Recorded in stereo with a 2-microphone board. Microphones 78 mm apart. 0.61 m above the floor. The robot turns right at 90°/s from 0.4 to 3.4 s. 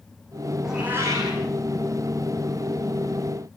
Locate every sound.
0.6 s a cat meowing: straight behind, 6 m; by 1.4 s 110° right, 6 m